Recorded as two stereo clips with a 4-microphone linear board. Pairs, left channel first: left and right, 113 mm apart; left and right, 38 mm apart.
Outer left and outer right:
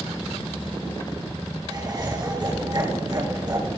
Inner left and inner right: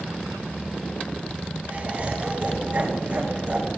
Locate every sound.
1.7 s laughter: 40° right (ahead or behind), 8 m